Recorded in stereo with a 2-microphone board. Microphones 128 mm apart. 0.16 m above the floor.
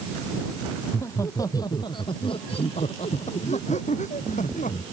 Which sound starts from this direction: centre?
Laughter, at 0.8 s.